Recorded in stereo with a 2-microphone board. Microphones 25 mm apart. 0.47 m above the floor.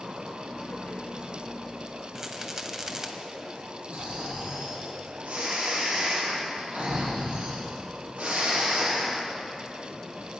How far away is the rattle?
About 1.9 m.